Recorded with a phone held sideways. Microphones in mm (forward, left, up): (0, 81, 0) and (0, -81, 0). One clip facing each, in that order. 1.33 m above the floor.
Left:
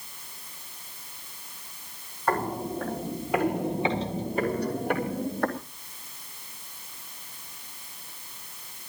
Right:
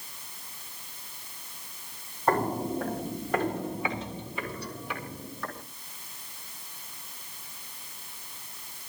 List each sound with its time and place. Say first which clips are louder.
2.3 s footsteps: right 1 dB; 20° right (ahead or behind), 2.5 m; by 5.6 s 60° left (ahead or behind), 3 m